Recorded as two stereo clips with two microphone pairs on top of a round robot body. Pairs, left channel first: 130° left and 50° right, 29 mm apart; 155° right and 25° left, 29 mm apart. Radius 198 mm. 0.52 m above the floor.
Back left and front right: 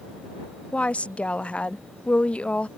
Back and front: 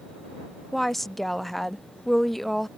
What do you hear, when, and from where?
0.7 s a woman speaking: 145° left